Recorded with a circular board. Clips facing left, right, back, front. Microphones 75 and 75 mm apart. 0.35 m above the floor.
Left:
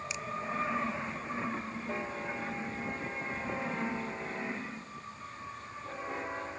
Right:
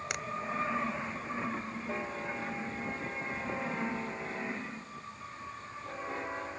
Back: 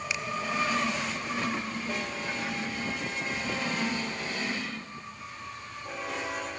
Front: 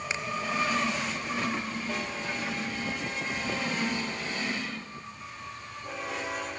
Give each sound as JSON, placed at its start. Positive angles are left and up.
{"t": 0.1, "sound": "a finger snap", "azimuth_deg": -60}